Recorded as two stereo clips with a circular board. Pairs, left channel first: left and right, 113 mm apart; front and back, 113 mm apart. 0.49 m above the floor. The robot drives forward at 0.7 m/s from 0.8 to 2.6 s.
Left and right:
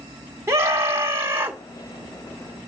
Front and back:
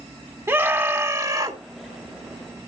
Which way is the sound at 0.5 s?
130° right.